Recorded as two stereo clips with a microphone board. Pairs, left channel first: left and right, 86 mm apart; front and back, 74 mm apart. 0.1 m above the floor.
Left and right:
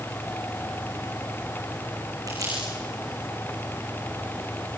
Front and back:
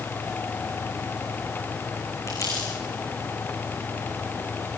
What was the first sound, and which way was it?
Crumpling, 40° right.